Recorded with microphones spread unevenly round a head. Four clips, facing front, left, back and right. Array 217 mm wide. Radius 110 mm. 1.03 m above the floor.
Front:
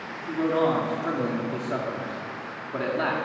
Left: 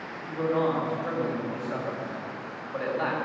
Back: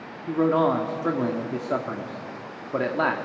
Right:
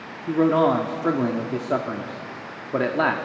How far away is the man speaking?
About 1.9 m.